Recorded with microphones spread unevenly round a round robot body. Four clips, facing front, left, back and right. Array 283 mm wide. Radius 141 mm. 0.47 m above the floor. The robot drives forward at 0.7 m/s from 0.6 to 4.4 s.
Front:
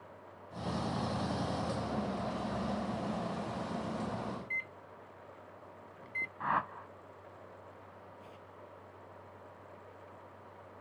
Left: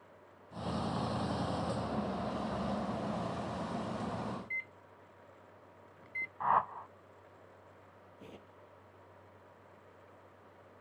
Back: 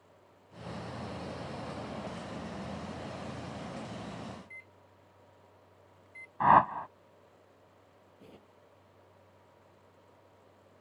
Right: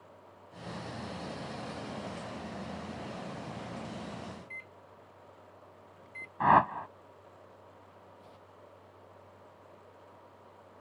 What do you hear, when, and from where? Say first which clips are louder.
4.4 s a microwave: left 3 dB, front 10 dB; straight ahead
6.4 s a whoosh: right 7 dB, back 12 dB; 120° right
8.2 s tearing paper: left 1 dB, front 4 dB; 115° left